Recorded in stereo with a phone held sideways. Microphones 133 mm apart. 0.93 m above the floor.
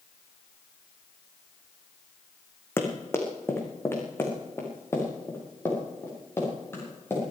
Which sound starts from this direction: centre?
Running footsteps, at 2.8 s.